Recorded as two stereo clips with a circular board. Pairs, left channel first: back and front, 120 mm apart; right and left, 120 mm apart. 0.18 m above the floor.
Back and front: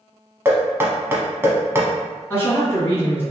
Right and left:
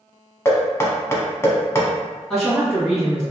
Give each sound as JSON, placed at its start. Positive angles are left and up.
{"t": 0.5, "sound": "knocking", "azimuth_deg": -50, "distance_m": 0.8}
{"t": 2.3, "sound": "a woman speaking", "azimuth_deg": -170, "distance_m": 1.5}